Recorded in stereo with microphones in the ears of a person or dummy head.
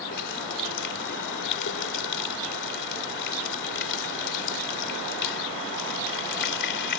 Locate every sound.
0.1 s a running tap: 60° left (ahead or behind)